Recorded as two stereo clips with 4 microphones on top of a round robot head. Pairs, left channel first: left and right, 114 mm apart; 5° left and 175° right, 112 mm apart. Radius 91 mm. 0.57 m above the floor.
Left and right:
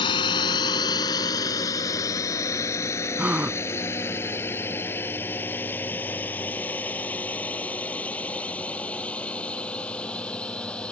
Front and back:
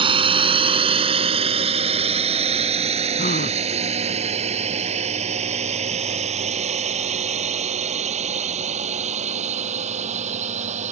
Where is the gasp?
15° right.